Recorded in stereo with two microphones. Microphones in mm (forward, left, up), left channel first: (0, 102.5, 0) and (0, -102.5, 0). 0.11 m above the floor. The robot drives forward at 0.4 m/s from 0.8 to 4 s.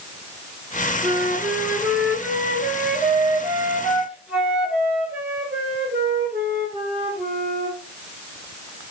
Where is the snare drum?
No snare drum in this recording.